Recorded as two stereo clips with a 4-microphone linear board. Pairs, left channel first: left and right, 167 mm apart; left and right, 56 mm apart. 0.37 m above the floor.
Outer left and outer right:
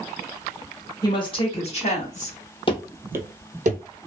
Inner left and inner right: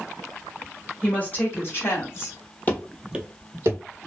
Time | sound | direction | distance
1.0 | a woman speaking | 25° left (ahead or behind) | 0.9 m
2.7 | running footsteps | 30° left (ahead or behind) | 0.5 m